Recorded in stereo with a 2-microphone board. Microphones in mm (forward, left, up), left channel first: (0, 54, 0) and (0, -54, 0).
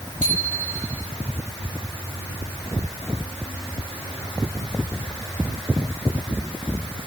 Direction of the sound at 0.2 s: 85° right.